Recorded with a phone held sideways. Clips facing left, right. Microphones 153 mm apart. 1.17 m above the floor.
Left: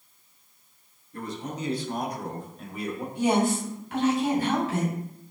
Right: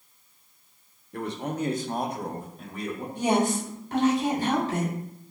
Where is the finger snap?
I don't hear a finger snap.